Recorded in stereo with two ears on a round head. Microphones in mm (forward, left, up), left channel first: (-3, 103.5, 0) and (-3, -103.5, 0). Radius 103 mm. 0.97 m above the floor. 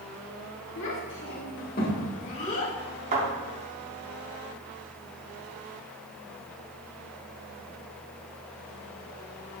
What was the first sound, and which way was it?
A child speaking, 65° left (ahead or behind).